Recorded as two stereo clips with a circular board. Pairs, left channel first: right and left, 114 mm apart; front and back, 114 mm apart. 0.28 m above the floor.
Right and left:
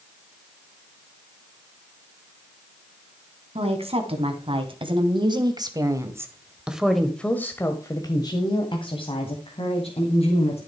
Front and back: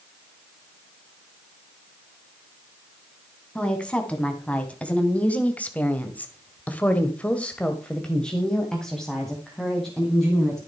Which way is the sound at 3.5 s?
80° left.